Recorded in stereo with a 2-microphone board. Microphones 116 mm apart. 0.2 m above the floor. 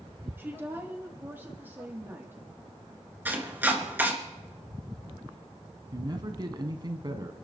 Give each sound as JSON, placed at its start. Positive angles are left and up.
{"t": 0.4, "sound": "a woman speaking", "side_deg": -20, "distance_m": 7.0}
{"t": 3.2, "sound": "chopping", "side_deg": -15, "distance_m": 3.0}
{"t": 5.9, "sound": "a man speaking", "side_deg": -40, "distance_m": 1.6}